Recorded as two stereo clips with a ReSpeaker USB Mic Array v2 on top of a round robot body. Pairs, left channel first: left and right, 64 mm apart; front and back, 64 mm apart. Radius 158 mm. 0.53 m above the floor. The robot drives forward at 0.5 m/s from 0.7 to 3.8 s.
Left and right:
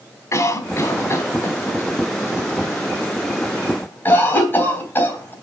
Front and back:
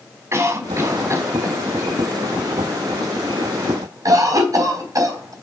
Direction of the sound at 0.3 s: 130° left.